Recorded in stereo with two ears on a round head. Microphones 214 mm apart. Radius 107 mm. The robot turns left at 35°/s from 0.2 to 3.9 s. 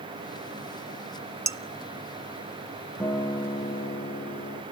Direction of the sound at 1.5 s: 15° right (ahead or behind).